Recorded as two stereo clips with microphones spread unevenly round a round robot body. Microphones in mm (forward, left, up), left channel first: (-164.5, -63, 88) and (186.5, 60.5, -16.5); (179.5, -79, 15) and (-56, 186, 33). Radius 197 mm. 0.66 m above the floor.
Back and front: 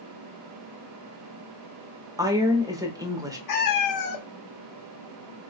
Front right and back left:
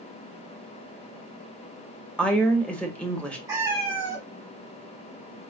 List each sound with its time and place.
2.2 s a woman speaking: 30° left, 0.9 m
3.5 s a cat meowing: 150° right, 0.8 m